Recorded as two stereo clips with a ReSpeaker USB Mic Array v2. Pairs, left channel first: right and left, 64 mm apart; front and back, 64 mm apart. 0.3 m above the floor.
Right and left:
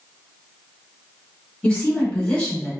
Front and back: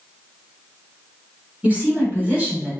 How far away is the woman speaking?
About 1.6 m.